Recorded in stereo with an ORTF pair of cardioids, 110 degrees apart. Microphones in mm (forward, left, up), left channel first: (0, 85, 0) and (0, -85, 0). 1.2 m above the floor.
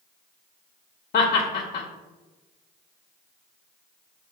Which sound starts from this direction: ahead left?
Laughter, at 1.1 s.